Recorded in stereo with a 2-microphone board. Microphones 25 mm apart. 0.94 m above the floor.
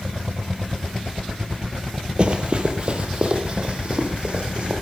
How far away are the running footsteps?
About 1.5 m.